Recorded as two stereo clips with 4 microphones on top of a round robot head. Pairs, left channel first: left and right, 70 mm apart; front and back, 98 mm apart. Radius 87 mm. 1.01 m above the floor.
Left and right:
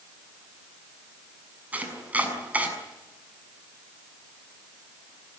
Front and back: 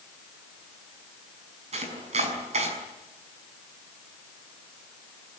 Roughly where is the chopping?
Behind.